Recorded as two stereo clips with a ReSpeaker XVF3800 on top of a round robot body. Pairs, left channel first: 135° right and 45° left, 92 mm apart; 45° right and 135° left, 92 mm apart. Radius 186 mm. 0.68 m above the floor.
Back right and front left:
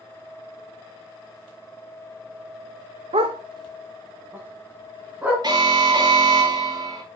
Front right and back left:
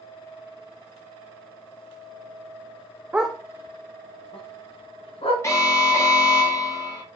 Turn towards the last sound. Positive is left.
turn(degrees=10)